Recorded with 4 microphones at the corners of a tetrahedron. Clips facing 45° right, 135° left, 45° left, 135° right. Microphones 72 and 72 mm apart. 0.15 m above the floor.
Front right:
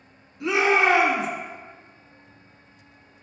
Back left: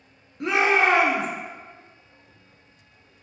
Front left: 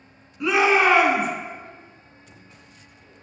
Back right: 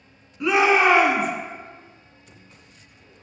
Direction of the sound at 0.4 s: 135° left.